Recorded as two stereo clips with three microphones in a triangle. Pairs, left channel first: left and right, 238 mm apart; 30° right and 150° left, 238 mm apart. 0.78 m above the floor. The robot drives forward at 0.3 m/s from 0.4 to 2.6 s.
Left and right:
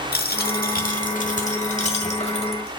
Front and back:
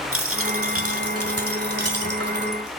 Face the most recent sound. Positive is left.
turn(degrees=155)